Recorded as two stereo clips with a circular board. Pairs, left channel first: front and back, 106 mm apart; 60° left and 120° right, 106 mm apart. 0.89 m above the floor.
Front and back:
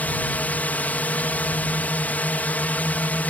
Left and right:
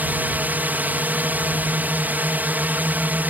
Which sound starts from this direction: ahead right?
A drone, at 0.0 s.